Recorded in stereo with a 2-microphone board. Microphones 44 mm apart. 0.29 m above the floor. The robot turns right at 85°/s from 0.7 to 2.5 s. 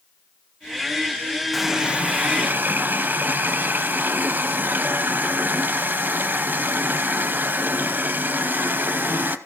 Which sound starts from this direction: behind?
A running tap, at 1.5 s.